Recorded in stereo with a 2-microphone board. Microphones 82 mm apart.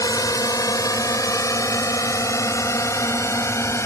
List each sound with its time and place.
0.0 s a drone: 45° left (ahead or behind); by 3.9 s 35° left (ahead or behind)